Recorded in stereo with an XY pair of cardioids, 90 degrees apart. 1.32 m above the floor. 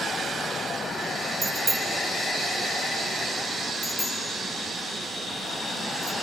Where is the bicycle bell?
35° right, 2.5 m; by 6.1 s 70° left, 5 m.